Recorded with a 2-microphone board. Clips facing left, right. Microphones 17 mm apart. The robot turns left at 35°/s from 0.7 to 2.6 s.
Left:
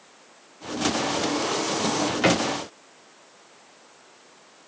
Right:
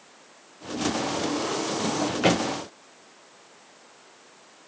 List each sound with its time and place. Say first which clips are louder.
1.8 s a drawer: even; centre (ahead or behind), 7.5 m; by 2.4 s 20° left (ahead or behind), 7.5 m